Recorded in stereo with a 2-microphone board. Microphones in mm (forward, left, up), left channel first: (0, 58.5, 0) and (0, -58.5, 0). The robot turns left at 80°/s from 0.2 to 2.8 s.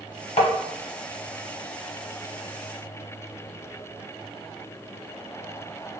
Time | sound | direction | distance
0.4 | tapping | 65° left (ahead or behind) | 0.7 m